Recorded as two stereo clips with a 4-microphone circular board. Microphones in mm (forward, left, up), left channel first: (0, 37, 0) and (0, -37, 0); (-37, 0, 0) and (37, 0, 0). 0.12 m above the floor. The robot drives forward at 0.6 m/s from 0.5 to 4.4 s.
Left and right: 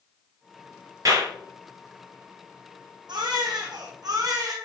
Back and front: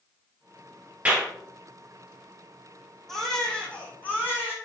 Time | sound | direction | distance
1.1 | a clap | 70° right | 2 m
3.1 | a baby crying | 95° right | 1.7 m